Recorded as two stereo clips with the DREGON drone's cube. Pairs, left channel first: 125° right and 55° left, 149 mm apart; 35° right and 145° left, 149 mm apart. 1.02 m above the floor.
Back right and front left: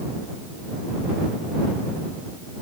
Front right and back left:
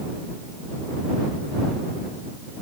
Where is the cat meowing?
No cat meowing in this recording.